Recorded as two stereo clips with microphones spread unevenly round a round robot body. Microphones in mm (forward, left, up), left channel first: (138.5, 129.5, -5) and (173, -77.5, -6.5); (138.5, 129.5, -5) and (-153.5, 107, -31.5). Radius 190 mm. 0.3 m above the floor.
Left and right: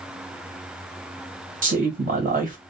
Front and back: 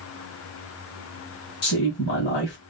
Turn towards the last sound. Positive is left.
turn(degrees=-45)